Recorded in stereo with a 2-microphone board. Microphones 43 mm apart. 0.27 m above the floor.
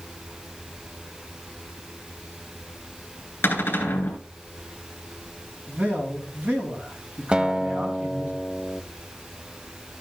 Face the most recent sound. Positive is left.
turn(degrees=-20)  # may be behind; listen again after turning